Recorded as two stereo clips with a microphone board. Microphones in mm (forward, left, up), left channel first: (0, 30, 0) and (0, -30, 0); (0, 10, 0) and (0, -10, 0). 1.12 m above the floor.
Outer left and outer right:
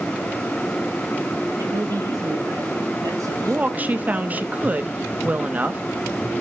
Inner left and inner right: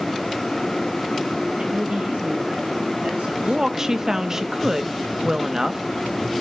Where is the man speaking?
85° right, 5.5 m; by 4.4 s 60° right (ahead or behind), 6.5 m.